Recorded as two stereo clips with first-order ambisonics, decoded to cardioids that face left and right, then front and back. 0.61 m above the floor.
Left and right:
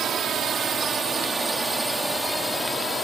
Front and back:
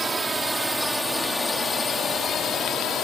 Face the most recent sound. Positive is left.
turn(degrees=20)